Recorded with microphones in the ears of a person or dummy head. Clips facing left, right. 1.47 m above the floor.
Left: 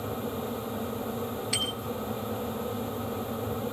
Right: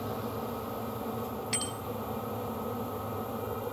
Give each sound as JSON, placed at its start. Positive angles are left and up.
{"t": 1.5, "sound": "a bicycle bell", "side_deg": -20, "distance_m": 4.0}